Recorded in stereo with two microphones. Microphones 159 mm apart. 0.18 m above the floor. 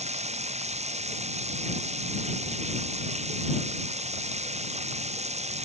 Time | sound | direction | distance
0.0 | running water | 40° right (ahead or behind) | ?